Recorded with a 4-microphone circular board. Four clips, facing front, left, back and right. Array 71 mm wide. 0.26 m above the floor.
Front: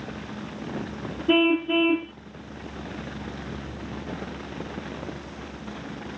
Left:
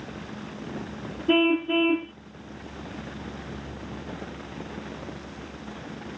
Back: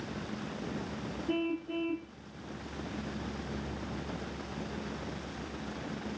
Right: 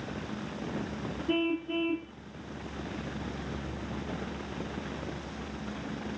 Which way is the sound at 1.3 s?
40° left.